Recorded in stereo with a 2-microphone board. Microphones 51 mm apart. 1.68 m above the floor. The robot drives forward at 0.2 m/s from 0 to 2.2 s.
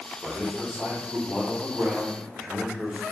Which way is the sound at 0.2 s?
15° right (ahead or behind).